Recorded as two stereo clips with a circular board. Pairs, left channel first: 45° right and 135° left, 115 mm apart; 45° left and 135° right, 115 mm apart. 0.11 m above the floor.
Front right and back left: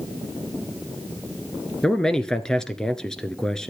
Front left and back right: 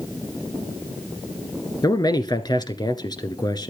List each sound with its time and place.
1.8 s a man speaking: 35° left, 1.4 m